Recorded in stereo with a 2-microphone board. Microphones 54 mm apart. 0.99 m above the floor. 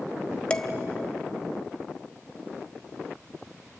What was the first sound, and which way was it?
Dishes clattering, 20° left (ahead or behind).